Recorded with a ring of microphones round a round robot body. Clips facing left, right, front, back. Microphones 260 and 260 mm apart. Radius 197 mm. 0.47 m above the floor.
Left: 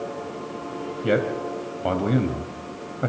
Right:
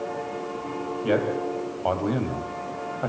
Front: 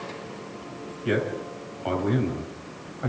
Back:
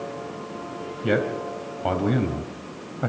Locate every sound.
1.0 s a man speaking: 155° left, 3 m